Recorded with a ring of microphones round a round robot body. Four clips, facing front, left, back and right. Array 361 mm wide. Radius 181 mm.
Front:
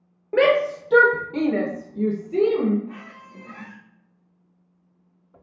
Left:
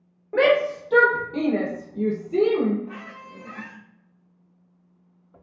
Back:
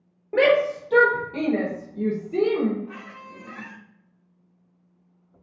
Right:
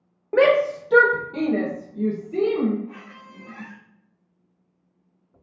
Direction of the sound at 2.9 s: 95° left.